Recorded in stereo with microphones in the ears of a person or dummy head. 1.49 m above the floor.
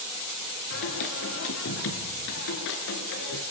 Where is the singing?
65° left (ahead or behind), 5 m.